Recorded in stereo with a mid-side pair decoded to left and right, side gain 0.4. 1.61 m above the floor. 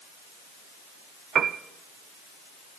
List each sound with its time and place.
1.4 s a piano: 60° right, 0.6 m